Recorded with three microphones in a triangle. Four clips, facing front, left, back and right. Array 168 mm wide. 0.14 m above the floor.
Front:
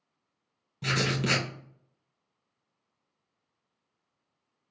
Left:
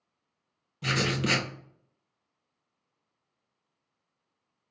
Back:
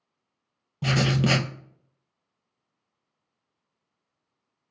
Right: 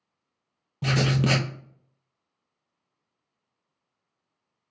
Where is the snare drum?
No snare drum in this recording.